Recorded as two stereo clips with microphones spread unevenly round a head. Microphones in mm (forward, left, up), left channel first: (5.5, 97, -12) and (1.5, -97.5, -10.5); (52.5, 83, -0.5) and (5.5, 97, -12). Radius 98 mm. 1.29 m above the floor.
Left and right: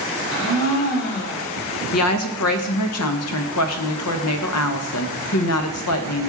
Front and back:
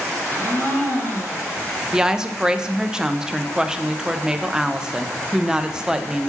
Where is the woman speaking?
85° left, 0.8 m.